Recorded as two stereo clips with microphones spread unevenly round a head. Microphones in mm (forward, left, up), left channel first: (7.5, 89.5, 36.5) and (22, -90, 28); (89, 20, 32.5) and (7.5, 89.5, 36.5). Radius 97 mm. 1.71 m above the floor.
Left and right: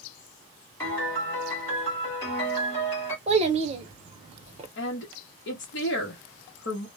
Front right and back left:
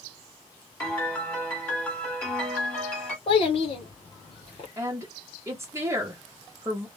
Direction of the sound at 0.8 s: 30° left.